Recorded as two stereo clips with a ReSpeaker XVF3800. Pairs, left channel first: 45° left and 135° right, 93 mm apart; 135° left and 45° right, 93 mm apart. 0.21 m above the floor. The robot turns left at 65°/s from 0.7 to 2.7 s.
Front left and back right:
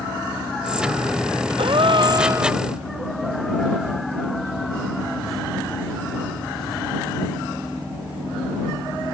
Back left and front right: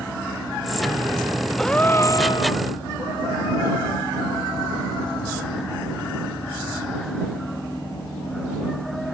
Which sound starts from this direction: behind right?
A gasp, at 1.6 s.